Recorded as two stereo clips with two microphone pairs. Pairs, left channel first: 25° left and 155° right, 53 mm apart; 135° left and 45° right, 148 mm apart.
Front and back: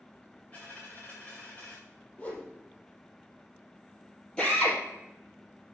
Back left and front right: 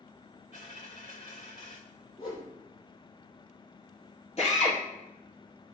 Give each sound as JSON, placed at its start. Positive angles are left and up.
{"t": 0.5, "sound": "a dropped coin", "azimuth_deg": 90, "distance_m": 4.5}
{"t": 2.2, "sound": "a whoosh", "azimuth_deg": 85, "distance_m": 3.5}
{"t": 4.4, "sound": "a drill", "azimuth_deg": 95, "distance_m": 3.5}